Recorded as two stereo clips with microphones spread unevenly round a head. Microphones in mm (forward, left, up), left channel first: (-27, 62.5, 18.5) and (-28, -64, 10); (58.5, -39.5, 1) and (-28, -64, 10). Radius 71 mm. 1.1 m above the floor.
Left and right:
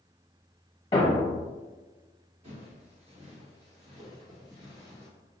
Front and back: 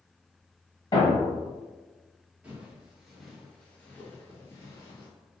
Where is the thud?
55° left, 1.1 m.